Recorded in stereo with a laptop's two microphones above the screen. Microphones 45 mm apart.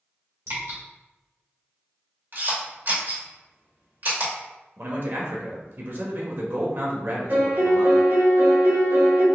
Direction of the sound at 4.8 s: 55° right (ahead or behind).